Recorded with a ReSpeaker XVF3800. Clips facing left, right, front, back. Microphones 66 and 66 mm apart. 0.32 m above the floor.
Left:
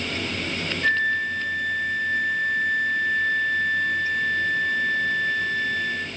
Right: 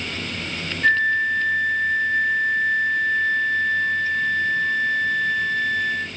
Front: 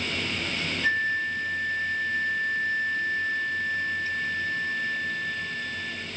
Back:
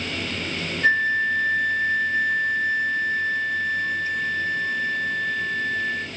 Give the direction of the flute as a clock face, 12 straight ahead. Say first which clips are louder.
Right 4 dB, back 7 dB; 6 o'clock.